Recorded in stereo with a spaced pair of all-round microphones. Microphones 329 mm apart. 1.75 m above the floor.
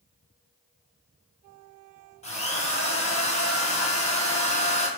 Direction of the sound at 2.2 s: 20° left (ahead or behind).